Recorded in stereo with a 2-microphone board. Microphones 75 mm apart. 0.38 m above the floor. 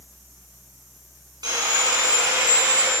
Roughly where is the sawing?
Right.